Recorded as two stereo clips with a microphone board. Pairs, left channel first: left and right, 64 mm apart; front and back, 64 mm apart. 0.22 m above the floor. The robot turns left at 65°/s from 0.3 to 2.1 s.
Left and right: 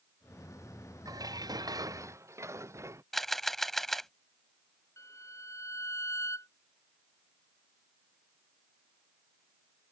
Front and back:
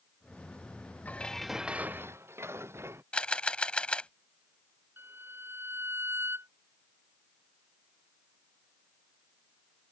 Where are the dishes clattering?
65° right; by 3.0 s 135° right.